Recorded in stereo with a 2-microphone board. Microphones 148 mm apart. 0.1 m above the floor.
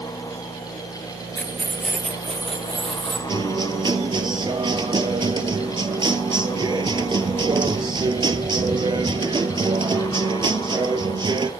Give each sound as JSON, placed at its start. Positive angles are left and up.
{"t": 1.4, "sound": "keys jangling", "side_deg": 10, "distance_m": 0.9}
{"t": 3.3, "sound": "a guitar", "side_deg": -35, "distance_m": 0.9}